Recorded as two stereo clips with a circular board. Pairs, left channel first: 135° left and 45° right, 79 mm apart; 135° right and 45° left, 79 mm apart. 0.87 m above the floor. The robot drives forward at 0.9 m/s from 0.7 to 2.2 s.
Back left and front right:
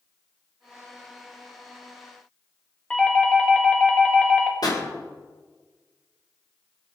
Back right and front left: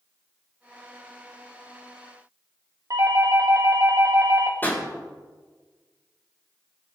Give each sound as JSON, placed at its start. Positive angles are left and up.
{"t": 2.9, "sound": "a doorbell", "azimuth_deg": 60, "distance_m": 1.9}
{"t": 4.6, "sound": "a pop", "azimuth_deg": 160, "distance_m": 4.0}